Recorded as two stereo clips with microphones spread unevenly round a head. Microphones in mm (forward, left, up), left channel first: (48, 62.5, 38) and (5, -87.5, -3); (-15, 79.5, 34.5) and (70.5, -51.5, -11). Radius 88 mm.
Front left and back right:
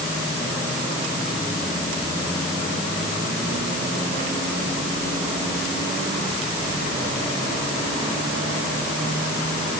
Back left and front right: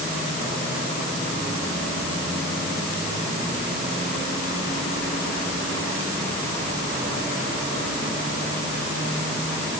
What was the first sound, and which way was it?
Only background noise.